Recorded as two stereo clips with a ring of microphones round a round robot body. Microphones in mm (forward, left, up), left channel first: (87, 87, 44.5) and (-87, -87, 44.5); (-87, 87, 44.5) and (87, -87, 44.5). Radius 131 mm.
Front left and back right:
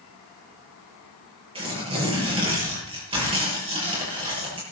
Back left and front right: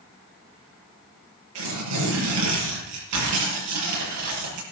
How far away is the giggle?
No giggle in this recording.